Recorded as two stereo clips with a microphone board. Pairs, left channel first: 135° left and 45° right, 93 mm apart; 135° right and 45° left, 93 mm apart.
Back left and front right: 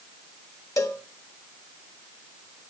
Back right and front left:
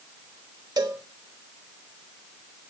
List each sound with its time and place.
0.8 s a cowbell: 85° left, 0.6 m